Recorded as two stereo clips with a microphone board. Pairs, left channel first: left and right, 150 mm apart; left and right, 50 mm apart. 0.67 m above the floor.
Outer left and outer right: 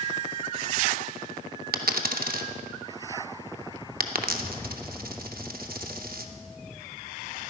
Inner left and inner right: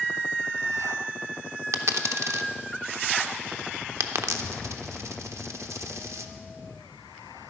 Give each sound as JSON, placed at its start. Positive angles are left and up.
{"t": 1.7, "sound": "a dropped coin", "side_deg": -85, "distance_m": 0.6}